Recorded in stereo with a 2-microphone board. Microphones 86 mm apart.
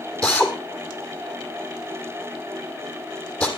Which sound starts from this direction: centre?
A drill, at 0.2 s.